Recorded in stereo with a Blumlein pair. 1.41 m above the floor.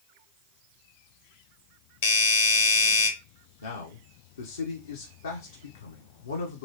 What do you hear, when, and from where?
2.0 s a doorbell: 55° left, 0.8 m
3.6 s a man speaking: 70° left, 0.7 m